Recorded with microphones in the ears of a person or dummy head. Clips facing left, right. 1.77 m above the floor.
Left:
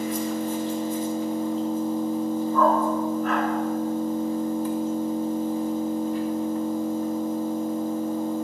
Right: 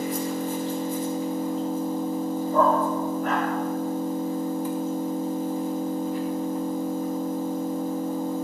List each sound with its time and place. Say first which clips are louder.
0.0 s an engine running: left 1 dB; 10° right (ahead or behind), 0.8 m
2.5 s a dog barking: even; 45° right (ahead or behind), 1.9 m